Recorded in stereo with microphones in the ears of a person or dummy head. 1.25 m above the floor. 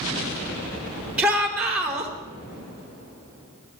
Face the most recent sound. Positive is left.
turn(degrees=-5)  # may be behind; listen again after turning